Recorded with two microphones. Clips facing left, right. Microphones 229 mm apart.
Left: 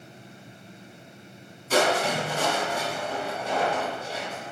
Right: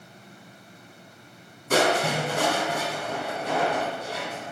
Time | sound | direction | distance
1.7 | crushing | 65° right (ahead or behind) | 4.5 m